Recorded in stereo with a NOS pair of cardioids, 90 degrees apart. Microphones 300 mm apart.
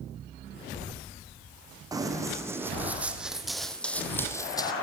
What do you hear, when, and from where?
1.9 s running footsteps: 15° right, 4 m; by 4.7 s 15° left, 2.5 m